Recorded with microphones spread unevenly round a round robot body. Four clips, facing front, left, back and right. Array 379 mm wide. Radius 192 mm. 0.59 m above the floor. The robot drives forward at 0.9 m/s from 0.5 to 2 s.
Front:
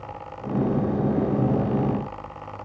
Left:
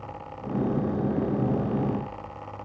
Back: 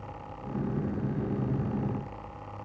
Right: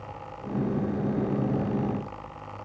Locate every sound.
Only background noise.